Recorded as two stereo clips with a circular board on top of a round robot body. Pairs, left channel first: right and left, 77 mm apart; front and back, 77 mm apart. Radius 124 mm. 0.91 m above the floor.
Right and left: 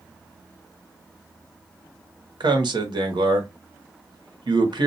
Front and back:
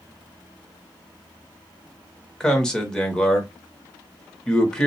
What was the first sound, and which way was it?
A man speaking, 80° left.